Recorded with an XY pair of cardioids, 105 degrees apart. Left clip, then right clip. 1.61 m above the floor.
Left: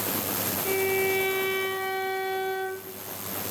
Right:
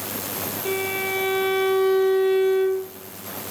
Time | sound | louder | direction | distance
0.7 | a violin | even | 45° right | 0.7 m